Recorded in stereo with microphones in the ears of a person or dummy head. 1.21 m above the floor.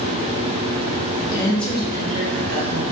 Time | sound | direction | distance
1.2 | a woman speaking | 35° left (ahead or behind) | 0.7 m